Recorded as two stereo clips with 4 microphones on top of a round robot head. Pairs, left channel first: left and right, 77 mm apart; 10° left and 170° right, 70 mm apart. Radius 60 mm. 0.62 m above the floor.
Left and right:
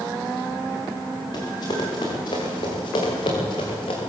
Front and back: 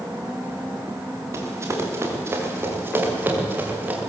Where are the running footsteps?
140° left, 6 m; by 4.0 s 120° left, 6 m.